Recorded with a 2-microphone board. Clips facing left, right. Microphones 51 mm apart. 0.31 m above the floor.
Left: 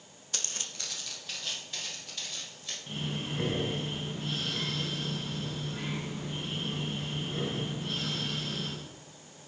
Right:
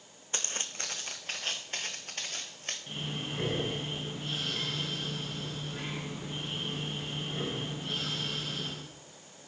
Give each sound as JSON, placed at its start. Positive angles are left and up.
{"t": 0.3, "sound": "footsteps", "side_deg": -25, "distance_m": 0.7}
{"t": 2.9, "sound": "breathing", "side_deg": -5, "distance_m": 1.8}